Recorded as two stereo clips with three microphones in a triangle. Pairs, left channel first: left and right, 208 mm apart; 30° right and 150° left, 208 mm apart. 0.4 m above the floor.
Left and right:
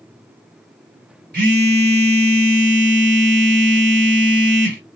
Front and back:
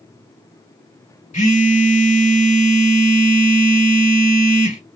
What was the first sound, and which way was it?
A phone buzzing, 70° right.